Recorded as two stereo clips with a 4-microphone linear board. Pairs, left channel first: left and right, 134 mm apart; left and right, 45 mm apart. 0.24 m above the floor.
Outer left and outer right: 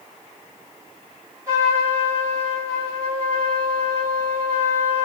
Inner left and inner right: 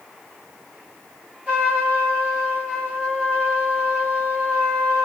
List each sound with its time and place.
1.5 s a trumpet: 25° right (ahead or behind), 1.9 m